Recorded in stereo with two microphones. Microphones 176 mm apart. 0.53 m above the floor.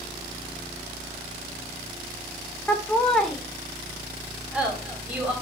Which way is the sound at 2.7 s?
10° left (ahead or behind).